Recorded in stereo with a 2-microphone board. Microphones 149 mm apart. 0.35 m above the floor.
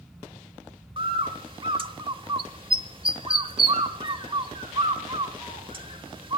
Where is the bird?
35° right (ahead or behind), 0.9 m.